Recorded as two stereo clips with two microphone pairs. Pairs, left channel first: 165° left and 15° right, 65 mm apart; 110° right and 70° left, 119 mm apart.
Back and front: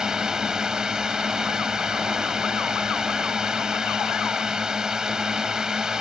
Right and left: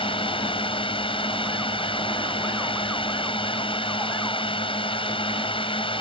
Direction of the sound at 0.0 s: 90° right.